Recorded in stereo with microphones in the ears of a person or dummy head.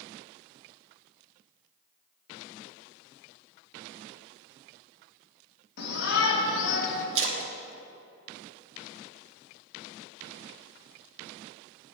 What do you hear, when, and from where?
5.8 s a shout: 60° left (ahead or behind), 1.6 m; by 7.0 s 70° left (ahead or behind), 1.2 m
7.2 s a splash: 70° right (ahead or behind), 0.9 m